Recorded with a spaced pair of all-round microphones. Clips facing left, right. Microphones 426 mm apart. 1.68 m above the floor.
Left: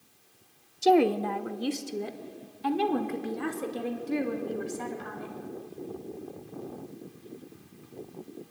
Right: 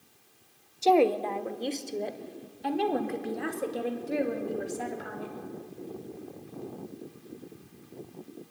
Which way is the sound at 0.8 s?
30° left (ahead or behind).